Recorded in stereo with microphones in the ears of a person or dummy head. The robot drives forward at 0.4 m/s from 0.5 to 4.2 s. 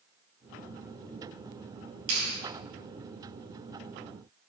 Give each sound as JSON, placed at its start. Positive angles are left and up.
{"t": 2.1, "sound": "a clap", "side_deg": -70, "distance_m": 7.0}